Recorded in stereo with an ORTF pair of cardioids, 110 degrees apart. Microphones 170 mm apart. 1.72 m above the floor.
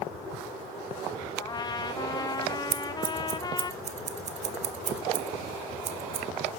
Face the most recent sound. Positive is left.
turn(degrees=-45)